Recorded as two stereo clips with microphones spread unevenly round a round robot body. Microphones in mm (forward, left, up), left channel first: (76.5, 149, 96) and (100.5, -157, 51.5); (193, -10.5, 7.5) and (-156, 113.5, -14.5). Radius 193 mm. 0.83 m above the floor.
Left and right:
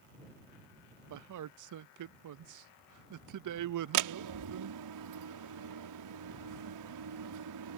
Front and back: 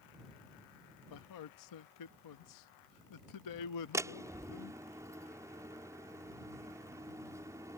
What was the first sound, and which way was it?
A man speaking, 65° right.